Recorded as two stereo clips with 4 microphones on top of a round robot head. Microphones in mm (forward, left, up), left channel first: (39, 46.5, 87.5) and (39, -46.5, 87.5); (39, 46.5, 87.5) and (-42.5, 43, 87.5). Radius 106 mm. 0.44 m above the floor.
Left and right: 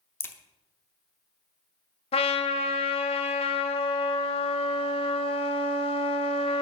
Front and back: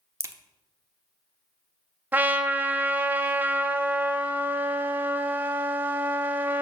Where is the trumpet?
115° left, 0.7 m.